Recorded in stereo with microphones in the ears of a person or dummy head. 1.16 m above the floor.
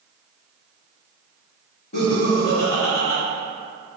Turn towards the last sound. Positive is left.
turn(degrees=55)  # may be behind; listen again after turning